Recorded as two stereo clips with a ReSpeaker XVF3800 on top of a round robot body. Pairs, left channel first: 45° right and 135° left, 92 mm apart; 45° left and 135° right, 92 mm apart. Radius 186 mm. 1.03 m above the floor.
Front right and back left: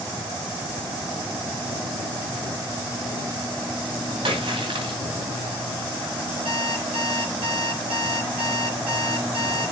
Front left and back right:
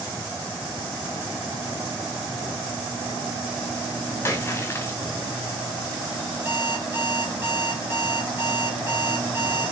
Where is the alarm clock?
155° left, 1.4 m.